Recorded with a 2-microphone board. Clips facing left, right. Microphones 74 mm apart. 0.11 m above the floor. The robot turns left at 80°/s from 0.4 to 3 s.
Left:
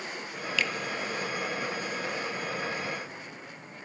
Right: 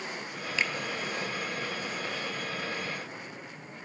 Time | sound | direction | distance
0.6 | a finger snap | 25° right (ahead or behind) | 1.1 m